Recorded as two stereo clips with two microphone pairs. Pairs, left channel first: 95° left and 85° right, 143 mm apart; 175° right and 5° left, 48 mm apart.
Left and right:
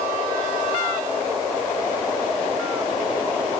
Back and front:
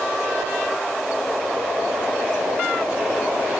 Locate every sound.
Only background noise.